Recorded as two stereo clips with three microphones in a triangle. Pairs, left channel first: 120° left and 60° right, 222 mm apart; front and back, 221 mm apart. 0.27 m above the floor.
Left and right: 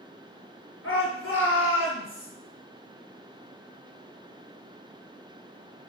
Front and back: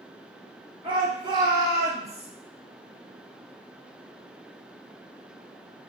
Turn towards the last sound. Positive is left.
turn(degrees=105)